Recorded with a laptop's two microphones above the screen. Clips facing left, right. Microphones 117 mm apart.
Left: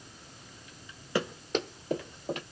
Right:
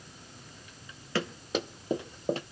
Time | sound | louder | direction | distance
1.1 | running footsteps | left 1 dB | 15° left (ahead or behind) | 1.0 m